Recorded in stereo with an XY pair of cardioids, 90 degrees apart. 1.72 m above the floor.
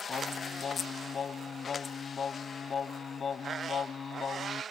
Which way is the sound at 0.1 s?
50° left.